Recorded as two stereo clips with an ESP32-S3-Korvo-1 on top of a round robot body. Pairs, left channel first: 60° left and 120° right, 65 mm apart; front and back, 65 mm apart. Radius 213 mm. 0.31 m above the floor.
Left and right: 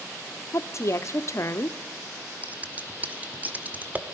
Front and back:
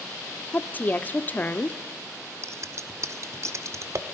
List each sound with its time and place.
0.5 s a woman speaking: 55° left, 1.1 m
2.4 s scissors: straight behind, 1.8 m